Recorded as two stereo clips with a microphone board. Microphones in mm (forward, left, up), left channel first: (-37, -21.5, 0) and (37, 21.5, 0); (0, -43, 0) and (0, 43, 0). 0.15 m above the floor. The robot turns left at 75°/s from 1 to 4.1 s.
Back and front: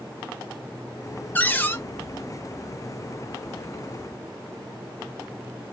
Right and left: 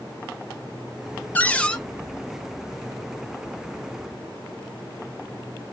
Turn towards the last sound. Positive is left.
turn(degrees=30)